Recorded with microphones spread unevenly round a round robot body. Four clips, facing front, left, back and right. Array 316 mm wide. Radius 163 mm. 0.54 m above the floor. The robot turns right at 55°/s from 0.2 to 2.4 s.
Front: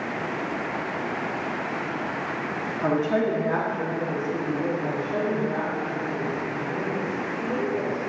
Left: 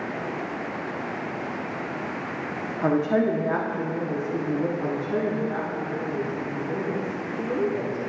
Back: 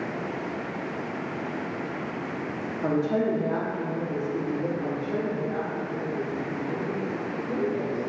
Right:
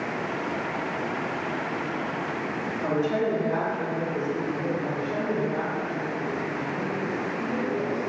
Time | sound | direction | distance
2.8 | a woman speaking | 65° left | 0.8 m
4.8 | a woman speaking | 95° left | 1.3 m